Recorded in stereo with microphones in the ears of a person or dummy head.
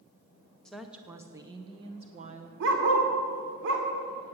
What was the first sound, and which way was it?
A woman speaking, 5° left (ahead or behind).